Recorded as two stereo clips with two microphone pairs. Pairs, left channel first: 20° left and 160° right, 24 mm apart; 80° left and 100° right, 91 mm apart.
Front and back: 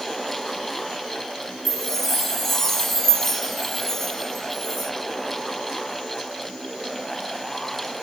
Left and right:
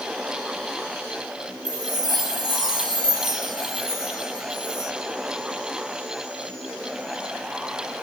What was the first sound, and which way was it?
A chime, 65° right.